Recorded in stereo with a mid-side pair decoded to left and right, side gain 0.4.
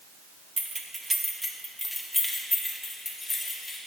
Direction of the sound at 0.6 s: 35° right.